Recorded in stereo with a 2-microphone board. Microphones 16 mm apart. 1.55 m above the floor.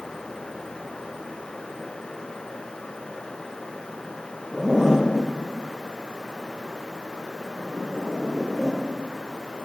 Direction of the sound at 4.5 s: 40° right (ahead or behind).